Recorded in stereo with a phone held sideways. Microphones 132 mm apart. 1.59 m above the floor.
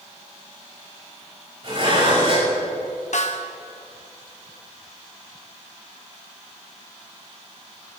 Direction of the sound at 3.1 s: 65° left (ahead or behind).